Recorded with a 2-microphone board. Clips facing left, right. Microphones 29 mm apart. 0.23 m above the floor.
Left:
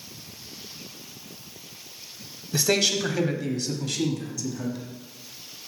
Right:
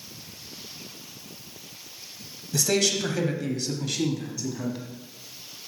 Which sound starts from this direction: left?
A man speaking, at 2.5 s.